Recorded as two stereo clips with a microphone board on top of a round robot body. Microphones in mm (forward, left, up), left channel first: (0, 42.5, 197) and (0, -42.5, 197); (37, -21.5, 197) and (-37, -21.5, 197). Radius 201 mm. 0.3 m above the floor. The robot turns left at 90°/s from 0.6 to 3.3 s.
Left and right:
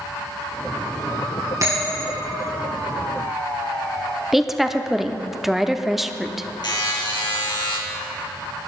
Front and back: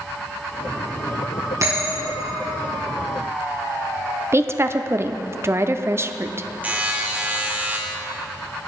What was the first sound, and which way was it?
A bell, 135° right.